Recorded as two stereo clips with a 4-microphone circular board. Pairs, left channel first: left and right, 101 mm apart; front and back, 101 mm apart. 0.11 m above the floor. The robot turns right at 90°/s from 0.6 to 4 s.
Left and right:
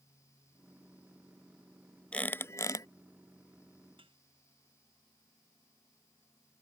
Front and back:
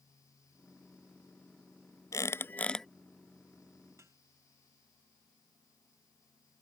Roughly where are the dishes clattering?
Behind right.